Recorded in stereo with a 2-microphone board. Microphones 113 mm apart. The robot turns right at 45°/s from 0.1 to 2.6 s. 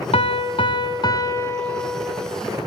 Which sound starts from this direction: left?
A piano, at 0.1 s.